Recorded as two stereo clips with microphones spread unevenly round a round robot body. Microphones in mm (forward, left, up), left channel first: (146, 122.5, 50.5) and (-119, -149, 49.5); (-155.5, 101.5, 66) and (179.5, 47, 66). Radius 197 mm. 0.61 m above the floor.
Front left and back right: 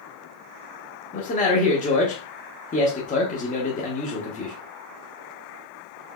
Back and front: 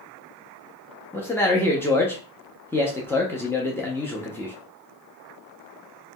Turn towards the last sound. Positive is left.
turn(degrees=95)